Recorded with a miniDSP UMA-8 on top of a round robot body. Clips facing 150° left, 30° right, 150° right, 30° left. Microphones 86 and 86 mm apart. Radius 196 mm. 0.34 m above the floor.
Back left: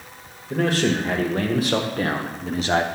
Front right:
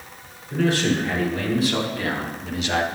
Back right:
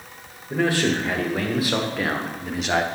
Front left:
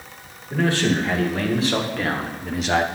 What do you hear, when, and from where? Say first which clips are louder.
0.5 s a man speaking: even, front left 1 dB; 135° left, 2.5 m; by 2.9 s 115° left, 1.2 m